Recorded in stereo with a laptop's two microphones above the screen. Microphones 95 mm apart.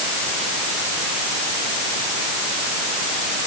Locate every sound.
Only background noise.